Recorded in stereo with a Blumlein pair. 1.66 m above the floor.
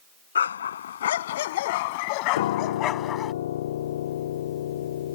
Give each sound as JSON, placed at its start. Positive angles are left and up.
{"t": 0.3, "sound": "a dog barking", "azimuth_deg": 65}
{"t": 2.4, "sound": "a piano", "azimuth_deg": 60}